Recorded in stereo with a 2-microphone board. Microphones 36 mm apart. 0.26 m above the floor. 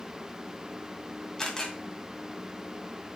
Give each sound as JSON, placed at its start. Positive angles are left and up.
{"t": 1.4, "sound": "a camera shutter", "side_deg": 15, "distance_m": 2.5}